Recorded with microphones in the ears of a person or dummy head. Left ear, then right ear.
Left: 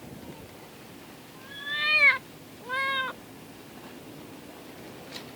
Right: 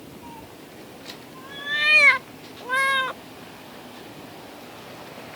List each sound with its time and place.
0.2 s a cat meowing: 5° right (ahead or behind); by 3.2 s 15° right (ahead or behind)